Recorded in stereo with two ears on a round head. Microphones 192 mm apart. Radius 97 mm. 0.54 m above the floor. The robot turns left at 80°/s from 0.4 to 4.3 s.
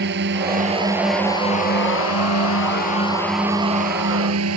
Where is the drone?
125° right; by 4.6 s 75° right.